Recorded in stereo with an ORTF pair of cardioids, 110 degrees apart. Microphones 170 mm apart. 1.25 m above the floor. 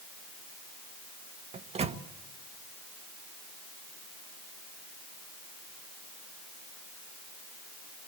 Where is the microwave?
40° right, 1.4 m.